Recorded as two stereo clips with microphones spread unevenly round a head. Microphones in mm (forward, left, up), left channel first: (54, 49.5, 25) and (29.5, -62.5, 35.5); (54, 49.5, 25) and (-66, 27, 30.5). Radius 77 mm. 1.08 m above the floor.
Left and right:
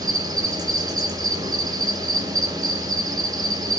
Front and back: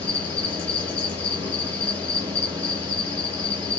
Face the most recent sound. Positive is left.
turn(degrees=-60)